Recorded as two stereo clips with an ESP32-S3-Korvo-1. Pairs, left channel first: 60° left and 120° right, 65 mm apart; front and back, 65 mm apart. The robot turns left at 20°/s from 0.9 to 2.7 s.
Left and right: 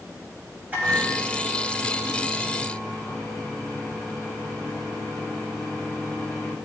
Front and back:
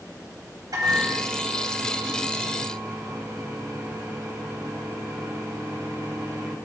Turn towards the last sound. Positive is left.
turn(degrees=140)